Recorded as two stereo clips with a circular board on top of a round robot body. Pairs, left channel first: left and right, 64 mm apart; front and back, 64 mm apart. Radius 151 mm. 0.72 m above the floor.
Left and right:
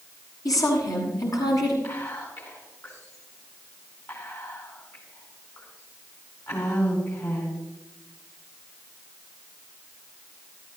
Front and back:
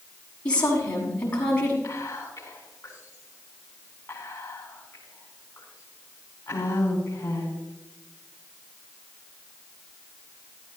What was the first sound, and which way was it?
A woman speaking, 70° left.